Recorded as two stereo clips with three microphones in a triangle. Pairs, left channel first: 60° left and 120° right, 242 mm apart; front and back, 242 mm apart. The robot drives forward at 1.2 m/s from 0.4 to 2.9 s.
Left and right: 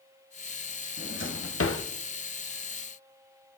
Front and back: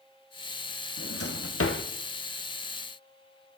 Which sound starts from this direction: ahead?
A drawer, at 1.0 s.